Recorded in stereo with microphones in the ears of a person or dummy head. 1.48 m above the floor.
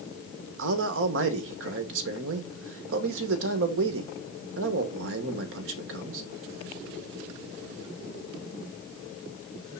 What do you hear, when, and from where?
0.6 s a man speaking: 70° right (ahead or behind), 1.1 m